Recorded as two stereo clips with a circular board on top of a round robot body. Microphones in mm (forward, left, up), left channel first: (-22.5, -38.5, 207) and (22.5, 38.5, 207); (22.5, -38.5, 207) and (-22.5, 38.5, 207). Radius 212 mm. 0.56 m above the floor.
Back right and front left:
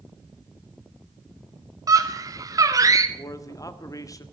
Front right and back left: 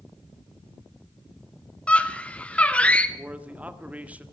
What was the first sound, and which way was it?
A scream, 15° left.